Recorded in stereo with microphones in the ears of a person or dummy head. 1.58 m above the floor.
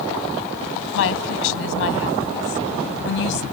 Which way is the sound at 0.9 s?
80° left.